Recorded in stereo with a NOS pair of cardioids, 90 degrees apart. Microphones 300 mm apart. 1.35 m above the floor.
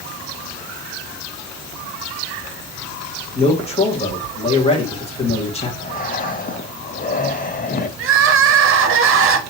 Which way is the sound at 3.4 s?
20° left.